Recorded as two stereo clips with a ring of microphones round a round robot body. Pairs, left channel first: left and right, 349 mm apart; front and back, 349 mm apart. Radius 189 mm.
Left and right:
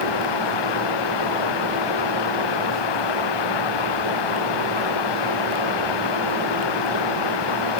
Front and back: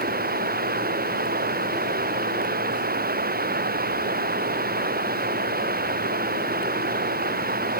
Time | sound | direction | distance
0.0 | running water | 115° left | ?